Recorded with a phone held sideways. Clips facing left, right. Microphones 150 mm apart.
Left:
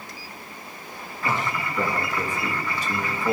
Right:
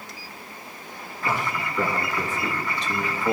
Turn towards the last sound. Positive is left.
turn(degrees=0)  # may be behind; listen again after turning